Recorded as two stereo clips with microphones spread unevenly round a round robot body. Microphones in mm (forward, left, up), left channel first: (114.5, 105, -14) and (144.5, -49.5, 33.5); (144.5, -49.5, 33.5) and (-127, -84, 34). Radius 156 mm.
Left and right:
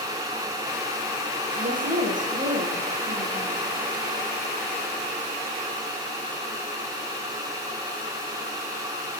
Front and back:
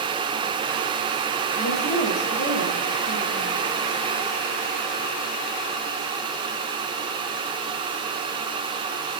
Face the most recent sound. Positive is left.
turn(degrees=-45)